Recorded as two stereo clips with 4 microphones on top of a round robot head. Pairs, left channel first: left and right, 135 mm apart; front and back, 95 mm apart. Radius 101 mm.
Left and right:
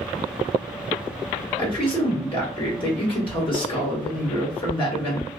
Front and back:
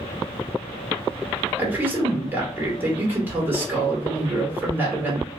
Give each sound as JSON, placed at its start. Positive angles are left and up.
{"t": 1.6, "sound": "a man speaking", "azimuth_deg": 120, "distance_m": 1.5}